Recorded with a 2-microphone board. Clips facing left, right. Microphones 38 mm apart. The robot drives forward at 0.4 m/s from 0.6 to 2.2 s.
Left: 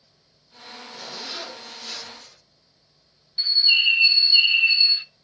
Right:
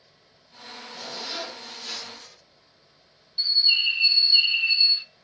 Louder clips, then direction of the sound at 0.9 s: Right 1 dB; 5° right (ahead or behind).